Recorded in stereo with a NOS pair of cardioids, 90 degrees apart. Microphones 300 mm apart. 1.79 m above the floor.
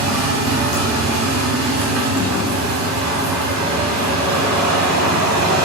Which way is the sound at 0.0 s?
60° right.